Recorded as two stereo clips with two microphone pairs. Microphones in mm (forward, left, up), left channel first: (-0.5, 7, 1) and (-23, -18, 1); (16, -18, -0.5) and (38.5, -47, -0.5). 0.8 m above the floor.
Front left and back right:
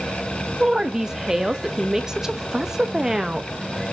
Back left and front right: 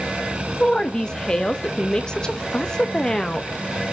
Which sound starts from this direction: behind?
A woman speaking, at 0.6 s.